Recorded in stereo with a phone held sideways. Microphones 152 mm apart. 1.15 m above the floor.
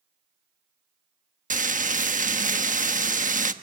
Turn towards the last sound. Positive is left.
turn(degrees=-60)  # may be behind; listen again after turning